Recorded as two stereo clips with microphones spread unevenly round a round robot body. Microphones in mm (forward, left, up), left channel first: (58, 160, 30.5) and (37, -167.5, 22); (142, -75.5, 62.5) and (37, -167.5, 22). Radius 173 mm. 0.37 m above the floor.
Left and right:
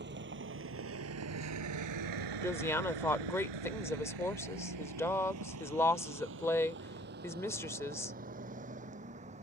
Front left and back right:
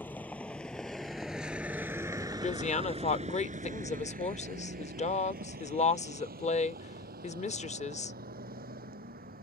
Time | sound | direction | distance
0.0 | a vehicle | 35° right | ?
2.4 | a woman speaking | 5° left | ?